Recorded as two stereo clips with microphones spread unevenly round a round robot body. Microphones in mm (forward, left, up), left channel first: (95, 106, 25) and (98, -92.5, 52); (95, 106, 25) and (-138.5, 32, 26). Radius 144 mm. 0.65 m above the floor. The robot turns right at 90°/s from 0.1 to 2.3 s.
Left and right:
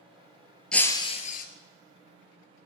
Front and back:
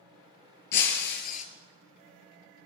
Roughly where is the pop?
No pop in this recording.